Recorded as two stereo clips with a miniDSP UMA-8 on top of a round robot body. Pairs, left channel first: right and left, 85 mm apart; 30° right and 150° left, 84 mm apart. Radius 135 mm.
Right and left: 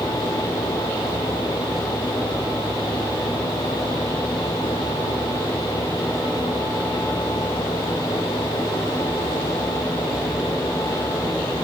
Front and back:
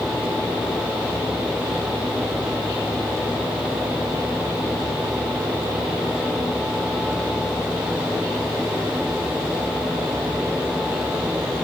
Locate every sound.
Only background noise.